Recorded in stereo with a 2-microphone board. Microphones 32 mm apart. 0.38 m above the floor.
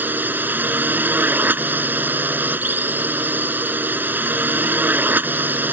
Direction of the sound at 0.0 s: 75° right (ahead or behind).